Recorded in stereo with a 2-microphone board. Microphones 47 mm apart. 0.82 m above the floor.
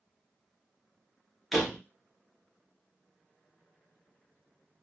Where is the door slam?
Centre (ahead or behind), 0.9 m.